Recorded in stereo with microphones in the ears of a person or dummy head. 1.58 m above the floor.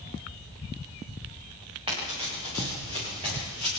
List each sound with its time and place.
1.9 s running footsteps: 25° right (ahead or behind), 10 m; by 3.7 s 30° right (ahead or behind), 12.5 m